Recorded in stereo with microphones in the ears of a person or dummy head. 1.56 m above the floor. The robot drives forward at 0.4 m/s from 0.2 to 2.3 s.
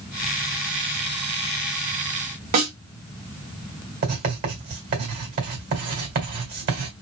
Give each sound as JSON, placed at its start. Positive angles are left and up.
{"t": 2.5, "sound": "a snare drum", "side_deg": -50, "distance_m": 2.0}
{"t": 4.0, "sound": "writing", "side_deg": -50, "distance_m": 2.5}